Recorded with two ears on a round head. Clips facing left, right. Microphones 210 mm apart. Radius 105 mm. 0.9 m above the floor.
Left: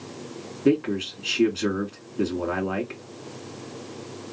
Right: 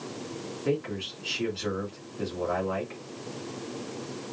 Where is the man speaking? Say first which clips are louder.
Left 9 dB; 70° left (ahead or behind), 2.5 m.